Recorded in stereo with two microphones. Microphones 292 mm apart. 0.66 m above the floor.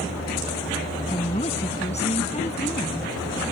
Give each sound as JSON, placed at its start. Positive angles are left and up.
{"t": 1.1, "sound": "a woman speaking", "side_deg": 20}